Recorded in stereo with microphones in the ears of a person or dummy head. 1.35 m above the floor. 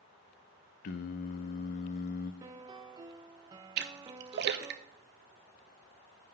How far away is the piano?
About 0.7 m.